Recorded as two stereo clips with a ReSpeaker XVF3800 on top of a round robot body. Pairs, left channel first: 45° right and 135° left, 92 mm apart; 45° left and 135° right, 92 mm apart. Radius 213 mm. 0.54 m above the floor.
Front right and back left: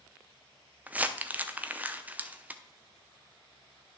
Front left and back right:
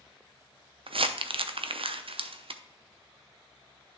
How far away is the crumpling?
About 0.7 m.